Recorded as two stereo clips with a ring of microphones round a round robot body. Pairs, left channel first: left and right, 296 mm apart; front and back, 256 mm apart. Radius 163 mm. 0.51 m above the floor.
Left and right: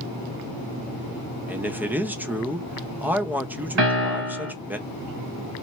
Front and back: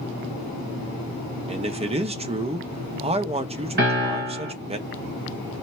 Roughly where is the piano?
Behind right.